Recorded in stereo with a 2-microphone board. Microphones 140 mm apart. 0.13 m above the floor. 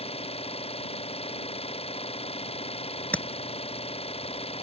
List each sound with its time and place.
0.0 s an engine running: 50° left (ahead or behind)
3.1 s tapping: 10° left (ahead or behind)